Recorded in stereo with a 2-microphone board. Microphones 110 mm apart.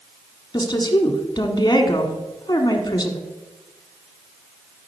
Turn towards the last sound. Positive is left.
turn(degrees=35)  # may be behind; listen again after turning